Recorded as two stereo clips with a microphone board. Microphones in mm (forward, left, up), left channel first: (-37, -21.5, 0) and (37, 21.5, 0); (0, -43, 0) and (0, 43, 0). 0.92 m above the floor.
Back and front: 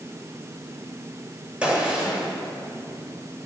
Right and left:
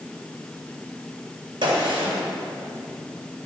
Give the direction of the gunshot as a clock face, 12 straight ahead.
8 o'clock.